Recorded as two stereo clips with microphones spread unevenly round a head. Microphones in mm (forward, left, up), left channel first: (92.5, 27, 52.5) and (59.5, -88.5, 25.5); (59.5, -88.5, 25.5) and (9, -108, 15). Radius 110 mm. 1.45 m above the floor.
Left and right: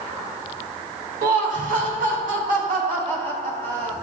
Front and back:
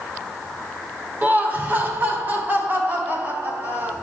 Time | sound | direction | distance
1.2 | laughter | 105° right | 2.5 m